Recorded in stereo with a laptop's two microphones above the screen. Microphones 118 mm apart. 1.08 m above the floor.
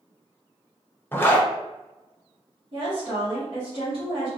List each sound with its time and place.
1.1 s a zipper: 20° left (ahead or behind), 0.5 m
2.7 s a woman speaking: 55° right (ahead or behind), 0.9 m